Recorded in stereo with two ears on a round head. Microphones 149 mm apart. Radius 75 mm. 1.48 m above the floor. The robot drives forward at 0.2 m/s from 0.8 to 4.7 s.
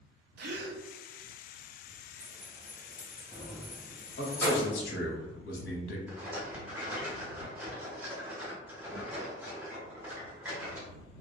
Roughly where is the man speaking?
Left.